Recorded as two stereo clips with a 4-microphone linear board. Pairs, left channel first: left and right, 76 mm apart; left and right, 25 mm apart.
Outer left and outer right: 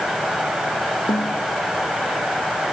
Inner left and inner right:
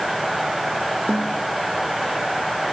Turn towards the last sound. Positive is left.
turn(degrees=75)  # may be behind; listen again after turning